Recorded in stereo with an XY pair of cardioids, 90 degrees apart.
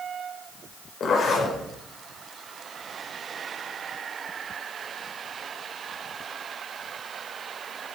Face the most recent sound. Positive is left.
turn(degrees=70)